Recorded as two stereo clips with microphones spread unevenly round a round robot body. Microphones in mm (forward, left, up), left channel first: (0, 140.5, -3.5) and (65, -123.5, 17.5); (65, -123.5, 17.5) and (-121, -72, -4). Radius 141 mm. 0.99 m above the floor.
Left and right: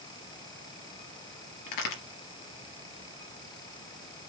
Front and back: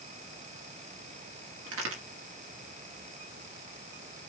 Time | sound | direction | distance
1.7 | a crack | 130° left | 3.5 m